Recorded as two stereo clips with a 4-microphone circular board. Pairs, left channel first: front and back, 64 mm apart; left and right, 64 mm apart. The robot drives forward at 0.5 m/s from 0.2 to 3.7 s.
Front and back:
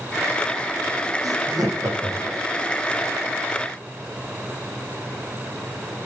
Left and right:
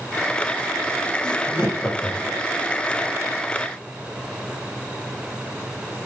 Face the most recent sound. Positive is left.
turn(degrees=165)